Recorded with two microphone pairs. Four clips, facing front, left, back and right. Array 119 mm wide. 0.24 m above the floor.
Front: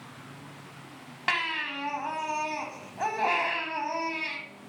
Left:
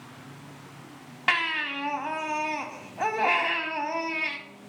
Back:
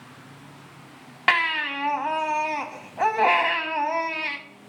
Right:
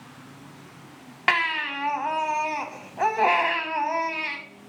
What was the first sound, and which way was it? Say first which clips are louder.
A baby crying: right 3 dB, back 7 dB; 150° right.